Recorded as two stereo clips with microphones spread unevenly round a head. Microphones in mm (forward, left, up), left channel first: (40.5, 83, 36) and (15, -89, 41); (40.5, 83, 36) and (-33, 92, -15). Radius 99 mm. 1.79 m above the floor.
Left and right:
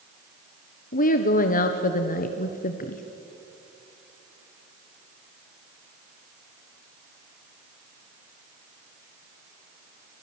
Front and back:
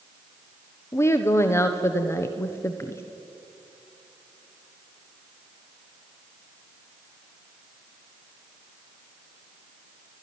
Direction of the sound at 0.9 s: 40° left.